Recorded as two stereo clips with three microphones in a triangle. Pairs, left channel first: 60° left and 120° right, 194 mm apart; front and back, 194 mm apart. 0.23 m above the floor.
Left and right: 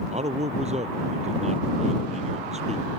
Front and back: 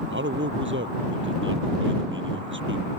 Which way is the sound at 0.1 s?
175° right.